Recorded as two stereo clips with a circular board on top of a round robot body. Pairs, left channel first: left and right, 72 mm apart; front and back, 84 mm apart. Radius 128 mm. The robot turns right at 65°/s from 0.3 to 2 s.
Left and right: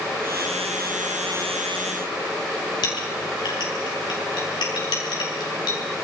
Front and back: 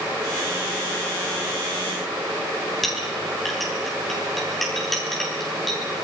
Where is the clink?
85° left, 7 m.